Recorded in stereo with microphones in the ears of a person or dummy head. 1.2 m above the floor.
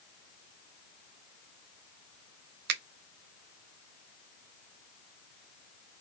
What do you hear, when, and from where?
2.7 s a finger snap: 60° right (ahead or behind), 0.7 m